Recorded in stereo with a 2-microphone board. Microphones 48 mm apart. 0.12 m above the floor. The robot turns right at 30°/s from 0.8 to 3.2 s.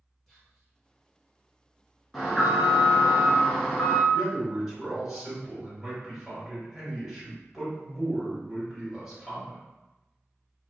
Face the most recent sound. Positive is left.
turn(degrees=-5)  # may be behind; listen again after turning